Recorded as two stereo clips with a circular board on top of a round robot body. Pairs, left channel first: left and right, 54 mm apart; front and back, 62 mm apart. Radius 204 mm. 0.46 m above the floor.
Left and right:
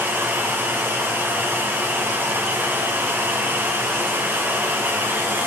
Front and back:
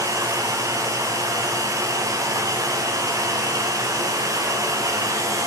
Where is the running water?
145° right, 1.4 m.